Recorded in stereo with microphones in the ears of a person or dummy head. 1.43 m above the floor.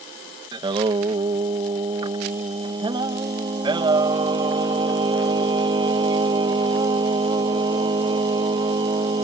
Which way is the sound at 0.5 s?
25° right (ahead or behind).